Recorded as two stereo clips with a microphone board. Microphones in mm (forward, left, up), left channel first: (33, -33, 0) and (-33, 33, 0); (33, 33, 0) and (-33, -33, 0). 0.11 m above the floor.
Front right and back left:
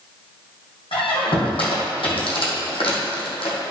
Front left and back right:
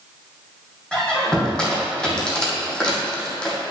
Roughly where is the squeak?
Ahead right.